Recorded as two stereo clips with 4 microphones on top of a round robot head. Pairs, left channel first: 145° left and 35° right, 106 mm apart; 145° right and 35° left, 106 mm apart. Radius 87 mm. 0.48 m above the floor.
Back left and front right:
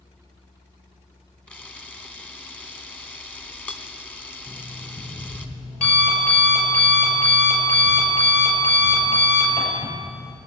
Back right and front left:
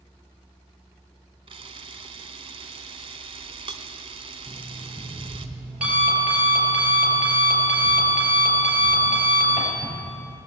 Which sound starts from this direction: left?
A camera shutter, at 1.5 s.